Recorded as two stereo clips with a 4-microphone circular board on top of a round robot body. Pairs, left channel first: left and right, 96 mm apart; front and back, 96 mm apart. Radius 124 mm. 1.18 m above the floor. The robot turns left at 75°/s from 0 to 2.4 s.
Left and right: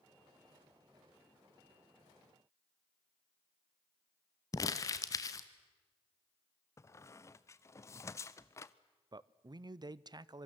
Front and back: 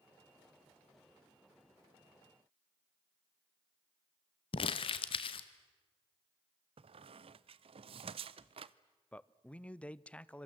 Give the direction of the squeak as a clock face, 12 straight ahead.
7 o'clock.